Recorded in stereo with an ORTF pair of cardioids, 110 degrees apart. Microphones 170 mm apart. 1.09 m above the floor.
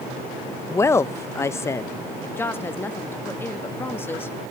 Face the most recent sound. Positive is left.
turn(degrees=15)